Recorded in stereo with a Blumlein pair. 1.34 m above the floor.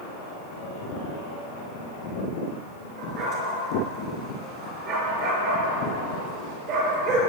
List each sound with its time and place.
3.0 s a dog barking: 45° right, 4.5 m